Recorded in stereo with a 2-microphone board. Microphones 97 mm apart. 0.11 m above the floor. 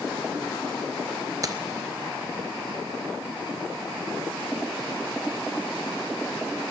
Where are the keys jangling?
40° right (ahead or behind), 1.2 m.